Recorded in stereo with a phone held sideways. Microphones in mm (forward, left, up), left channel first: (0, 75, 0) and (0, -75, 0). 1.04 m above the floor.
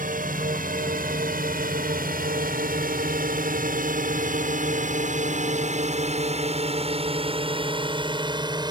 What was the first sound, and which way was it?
A drone, 65° right (ahead or behind).